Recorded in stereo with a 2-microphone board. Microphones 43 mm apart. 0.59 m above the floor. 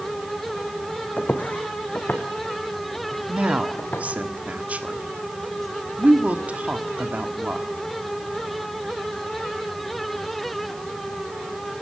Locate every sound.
1.2 s footsteps: 35° left (ahead or behind), 1.6 m; by 4.1 s 55° left (ahead or behind), 3.5 m
3.3 s a woman speaking: 35° right (ahead or behind), 1.5 m